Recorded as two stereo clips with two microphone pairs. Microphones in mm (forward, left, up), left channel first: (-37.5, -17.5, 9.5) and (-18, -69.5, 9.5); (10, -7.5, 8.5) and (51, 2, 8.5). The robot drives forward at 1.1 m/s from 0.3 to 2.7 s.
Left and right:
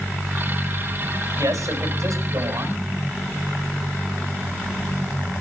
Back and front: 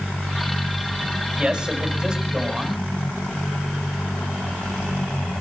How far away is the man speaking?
About 6 m.